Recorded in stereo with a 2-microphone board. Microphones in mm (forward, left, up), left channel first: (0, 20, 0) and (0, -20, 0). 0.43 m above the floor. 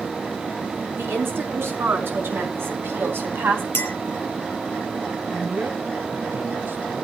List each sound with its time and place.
1.0 s a woman speaking: 75° right (ahead or behind), 6 m; by 3.6 s 70° right (ahead or behind), 4 m
3.7 s a clink: 70° left (ahead or behind), 1.8 m
5.3 s a man speaking: 60° right (ahead or behind), 2.5 m